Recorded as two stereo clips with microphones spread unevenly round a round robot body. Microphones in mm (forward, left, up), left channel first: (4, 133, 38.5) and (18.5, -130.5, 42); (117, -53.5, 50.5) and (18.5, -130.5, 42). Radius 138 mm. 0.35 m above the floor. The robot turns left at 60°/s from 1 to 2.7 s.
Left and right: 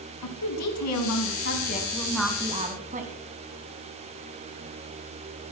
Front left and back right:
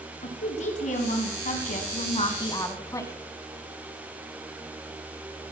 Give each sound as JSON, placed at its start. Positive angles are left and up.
{"t": 0.2, "sound": "a woman speaking", "azimuth_deg": 75, "distance_m": 3.5}